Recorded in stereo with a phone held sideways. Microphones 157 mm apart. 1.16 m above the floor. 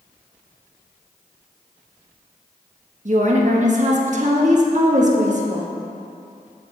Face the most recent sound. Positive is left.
turn(degrees=-50)  # may be behind; listen again after turning